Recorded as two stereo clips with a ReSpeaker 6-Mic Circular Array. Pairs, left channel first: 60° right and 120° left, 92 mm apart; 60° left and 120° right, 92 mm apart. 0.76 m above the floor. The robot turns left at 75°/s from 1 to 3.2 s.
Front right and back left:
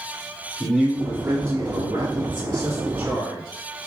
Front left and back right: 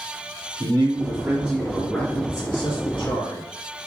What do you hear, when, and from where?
0.6 s a man speaking: 165° right, 1.6 m; by 3.4 s 30° left, 1.6 m